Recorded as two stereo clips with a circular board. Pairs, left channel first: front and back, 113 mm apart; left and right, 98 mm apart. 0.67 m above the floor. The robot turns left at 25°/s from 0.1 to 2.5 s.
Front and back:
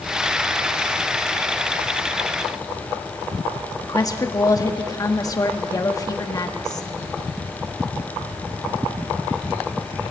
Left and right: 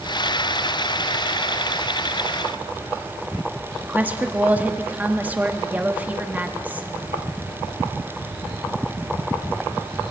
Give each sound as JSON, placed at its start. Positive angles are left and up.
{"t": 3.8, "sound": "a woman speaking", "azimuth_deg": -30, "distance_m": 1.2}